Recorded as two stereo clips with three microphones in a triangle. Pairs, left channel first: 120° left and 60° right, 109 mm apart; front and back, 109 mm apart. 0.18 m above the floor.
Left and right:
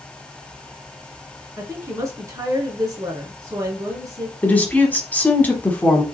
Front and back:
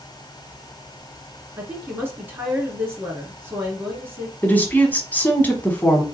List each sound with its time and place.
1.6 s a woman speaking: 115° right, 1.9 m
4.4 s a woman speaking: 60° left, 1.1 m